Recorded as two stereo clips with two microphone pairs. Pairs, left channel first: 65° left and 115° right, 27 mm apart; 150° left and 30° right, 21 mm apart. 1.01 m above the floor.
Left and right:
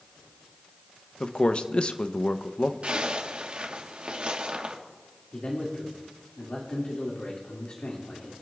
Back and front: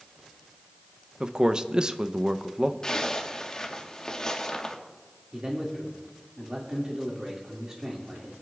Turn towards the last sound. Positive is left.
turn(degrees=20)